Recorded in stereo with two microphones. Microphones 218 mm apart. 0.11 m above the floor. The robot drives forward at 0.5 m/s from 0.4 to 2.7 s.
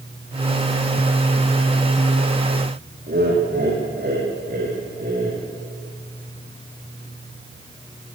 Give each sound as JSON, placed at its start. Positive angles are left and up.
{"t": 3.1, "sound": "laughter", "side_deg": -50, "distance_m": 6.0}